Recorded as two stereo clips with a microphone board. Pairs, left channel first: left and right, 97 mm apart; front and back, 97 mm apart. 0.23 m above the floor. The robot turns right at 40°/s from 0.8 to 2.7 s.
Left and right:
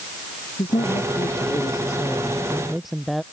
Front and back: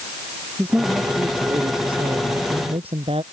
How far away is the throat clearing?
No throat clearing in this recording.